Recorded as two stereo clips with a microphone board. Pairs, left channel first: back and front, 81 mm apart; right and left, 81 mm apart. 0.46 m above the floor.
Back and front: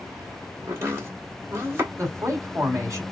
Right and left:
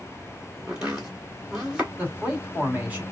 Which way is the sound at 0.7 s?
15° left.